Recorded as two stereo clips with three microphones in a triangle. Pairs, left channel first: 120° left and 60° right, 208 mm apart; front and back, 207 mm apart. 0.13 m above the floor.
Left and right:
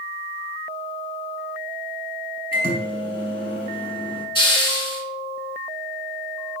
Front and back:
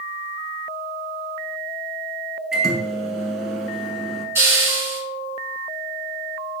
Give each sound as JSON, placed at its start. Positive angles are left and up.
{"t": 2.5, "sound": "a microwave", "azimuth_deg": 95, "distance_m": 0.9}
{"t": 4.3, "sound": "a hiss", "azimuth_deg": 125, "distance_m": 0.8}